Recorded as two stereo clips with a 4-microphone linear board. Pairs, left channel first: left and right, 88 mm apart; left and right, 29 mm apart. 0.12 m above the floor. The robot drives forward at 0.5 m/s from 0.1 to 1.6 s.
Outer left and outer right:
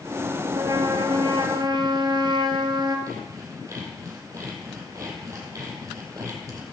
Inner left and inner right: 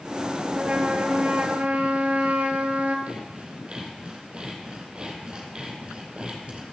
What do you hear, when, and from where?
0.5 s a trumpet: 50° right (ahead or behind), 1.5 m; by 3.0 s 55° right (ahead or behind), 1.4 m
3.1 s sawing: 35° right (ahead or behind), 3 m